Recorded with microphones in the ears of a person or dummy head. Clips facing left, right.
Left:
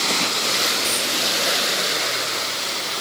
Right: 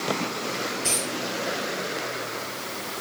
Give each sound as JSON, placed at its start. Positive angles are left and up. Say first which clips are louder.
{"t": 0.8, "sound": "a dropped coin", "louder": "left 2 dB", "side_deg": 15, "distance_m": 4.0}